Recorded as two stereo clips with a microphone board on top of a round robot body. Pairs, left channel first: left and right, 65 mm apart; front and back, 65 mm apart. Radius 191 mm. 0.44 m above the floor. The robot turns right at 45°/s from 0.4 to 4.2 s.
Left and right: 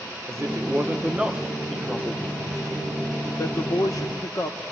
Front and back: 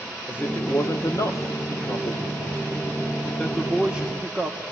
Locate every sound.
0.3 s a man speaking: 55° right, 2 m; by 4.6 s 115° left, 2 m